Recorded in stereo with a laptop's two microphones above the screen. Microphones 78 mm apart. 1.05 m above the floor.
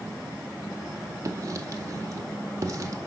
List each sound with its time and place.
1.2 s writing: 40° right (ahead or behind), 1.7 m